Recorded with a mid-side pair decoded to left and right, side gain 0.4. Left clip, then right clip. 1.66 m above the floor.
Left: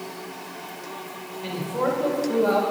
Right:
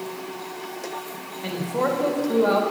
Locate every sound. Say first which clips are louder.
1.4 s a man speaking: right 1 dB; 25° right, 2.5 m